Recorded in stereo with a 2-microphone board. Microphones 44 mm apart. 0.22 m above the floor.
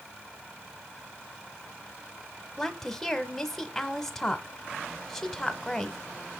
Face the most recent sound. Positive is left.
turn(degrees=5)  # may be behind; listen again after turning